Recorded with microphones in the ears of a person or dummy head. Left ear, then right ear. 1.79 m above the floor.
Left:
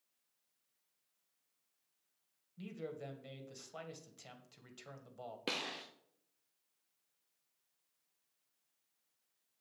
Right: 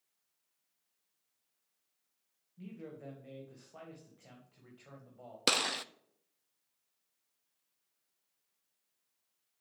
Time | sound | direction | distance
2.6 | a man speaking | 80° left | 2 m
5.5 | a gunshot | 55° right (ahead or behind) | 0.6 m